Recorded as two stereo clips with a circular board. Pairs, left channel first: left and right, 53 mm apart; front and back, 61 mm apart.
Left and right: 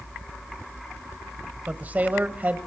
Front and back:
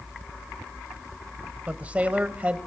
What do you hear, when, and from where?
1.7 s a man speaking: 125° right, 1.6 m